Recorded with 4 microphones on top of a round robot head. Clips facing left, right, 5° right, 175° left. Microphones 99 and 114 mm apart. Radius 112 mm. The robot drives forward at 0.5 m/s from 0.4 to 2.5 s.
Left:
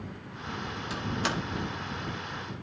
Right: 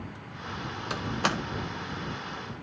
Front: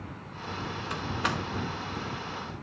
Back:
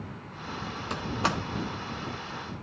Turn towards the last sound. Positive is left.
turn(degrees=-140)